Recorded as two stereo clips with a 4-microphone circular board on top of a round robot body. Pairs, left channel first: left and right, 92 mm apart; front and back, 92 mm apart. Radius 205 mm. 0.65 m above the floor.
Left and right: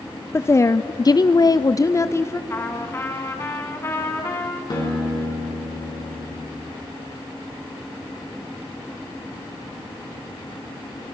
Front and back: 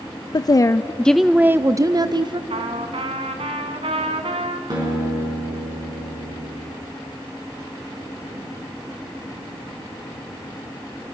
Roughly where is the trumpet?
Behind left.